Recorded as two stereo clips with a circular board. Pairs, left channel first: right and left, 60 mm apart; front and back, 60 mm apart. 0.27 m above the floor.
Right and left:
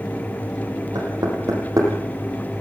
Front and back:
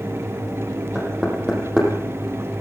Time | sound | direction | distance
0.9 | knocking | 105° left | 7 m